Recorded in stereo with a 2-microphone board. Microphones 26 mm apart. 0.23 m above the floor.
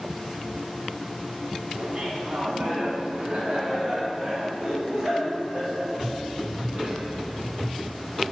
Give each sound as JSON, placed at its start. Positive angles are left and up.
{"t": 1.8, "sound": "laughter", "side_deg": -40, "distance_m": 1.8}